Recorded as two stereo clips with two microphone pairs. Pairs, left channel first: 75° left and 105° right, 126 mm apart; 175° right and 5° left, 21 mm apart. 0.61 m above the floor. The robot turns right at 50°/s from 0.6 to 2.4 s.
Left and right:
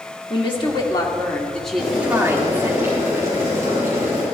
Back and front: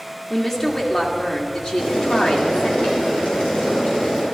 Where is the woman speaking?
110° left, 1.7 m; by 2.8 s 160° right, 1.7 m.